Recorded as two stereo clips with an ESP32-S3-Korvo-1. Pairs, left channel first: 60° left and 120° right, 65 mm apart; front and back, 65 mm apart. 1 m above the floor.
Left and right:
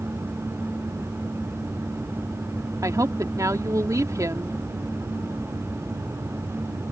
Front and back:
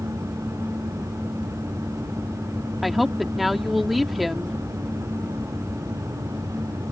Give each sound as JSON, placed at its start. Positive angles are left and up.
{"t": 2.8, "sound": "a woman speaking", "azimuth_deg": -90}